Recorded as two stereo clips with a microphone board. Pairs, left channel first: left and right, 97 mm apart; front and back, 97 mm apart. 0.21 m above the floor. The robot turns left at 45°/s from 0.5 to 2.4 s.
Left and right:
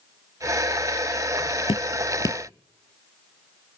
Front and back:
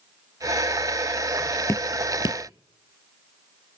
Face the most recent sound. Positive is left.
turn(degrees=30)